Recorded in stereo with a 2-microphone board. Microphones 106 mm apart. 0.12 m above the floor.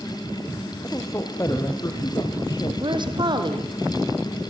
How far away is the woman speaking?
About 4 m.